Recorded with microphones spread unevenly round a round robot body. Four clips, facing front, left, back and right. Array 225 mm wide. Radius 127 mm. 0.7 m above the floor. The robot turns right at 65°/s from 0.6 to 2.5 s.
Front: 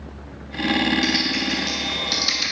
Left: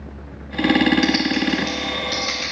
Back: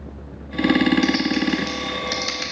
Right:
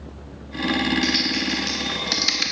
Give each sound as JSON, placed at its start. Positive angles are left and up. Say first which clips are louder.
{"t": 1.0, "sound": "typing on a keyboard", "louder": "left 5 dB, back 4 dB", "azimuth_deg": 160, "distance_m": 1.2}